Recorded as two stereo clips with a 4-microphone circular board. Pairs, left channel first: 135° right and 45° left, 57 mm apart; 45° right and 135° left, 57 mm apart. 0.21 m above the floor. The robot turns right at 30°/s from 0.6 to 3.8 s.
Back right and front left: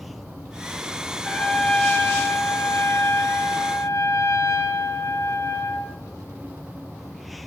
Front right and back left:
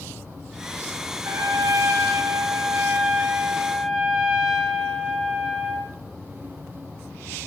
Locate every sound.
1.2 s a trumpet: 155° left, 3 m; by 6.0 s 125° right, 3 m